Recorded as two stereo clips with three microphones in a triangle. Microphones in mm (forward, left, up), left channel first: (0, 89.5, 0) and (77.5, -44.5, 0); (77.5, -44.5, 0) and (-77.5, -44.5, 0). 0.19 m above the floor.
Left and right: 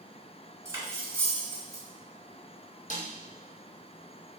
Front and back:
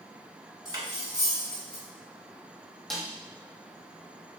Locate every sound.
0.7 s cutlery clinking: 125° right, 1.2 m
2.9 s a snare drum: 90° left, 1.3 m